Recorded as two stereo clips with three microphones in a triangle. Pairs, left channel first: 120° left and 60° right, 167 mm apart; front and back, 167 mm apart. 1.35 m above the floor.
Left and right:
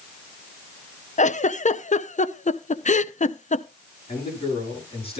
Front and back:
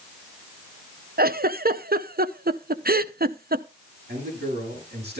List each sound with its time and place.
1.2 s a giggle: 160° left, 0.5 m
4.1 s a man speaking: 175° left, 9 m